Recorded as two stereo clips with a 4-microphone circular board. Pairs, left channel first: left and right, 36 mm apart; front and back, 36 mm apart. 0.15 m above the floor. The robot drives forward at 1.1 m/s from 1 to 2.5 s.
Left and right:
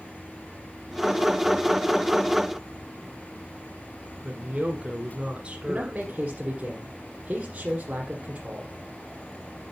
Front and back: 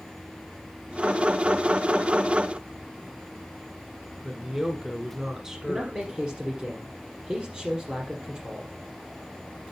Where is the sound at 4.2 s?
120° right, 1.3 m.